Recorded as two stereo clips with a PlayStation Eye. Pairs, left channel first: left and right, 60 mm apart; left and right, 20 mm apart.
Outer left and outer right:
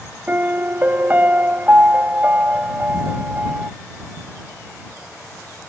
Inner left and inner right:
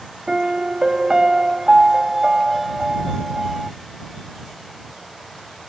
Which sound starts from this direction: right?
A piano, at 0.3 s.